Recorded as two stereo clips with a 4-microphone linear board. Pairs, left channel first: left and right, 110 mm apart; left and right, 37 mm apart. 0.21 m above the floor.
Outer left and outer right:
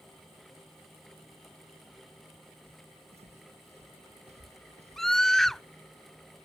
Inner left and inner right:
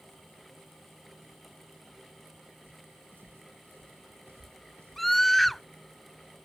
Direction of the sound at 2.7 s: 70° right (ahead or behind).